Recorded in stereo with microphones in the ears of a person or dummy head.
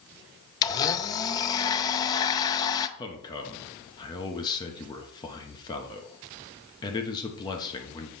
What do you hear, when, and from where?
0.6 s a blender: 20° left (ahead or behind), 0.5 m
3.0 s a man speaking: 20° left (ahead or behind), 1.1 m